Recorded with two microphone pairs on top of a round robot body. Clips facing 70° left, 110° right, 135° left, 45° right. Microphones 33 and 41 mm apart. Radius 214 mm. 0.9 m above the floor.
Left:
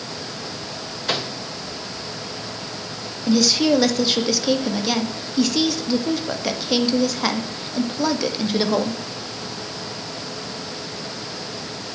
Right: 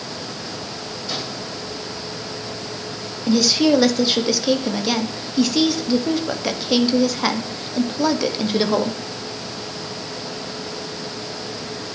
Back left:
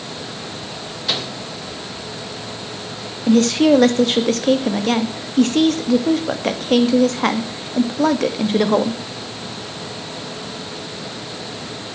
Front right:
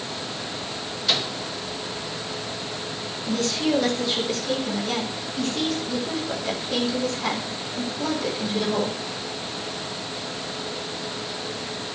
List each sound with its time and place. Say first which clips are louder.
1.1 s a microwave: left 5 dB, back left 1 dB; 55° left, 3 m
3.3 s a woman speaking: right 1 dB, back left 11 dB; 165° left, 2 m